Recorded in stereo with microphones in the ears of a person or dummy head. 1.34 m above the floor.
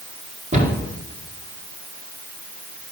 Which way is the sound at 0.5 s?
35° right (ahead or behind).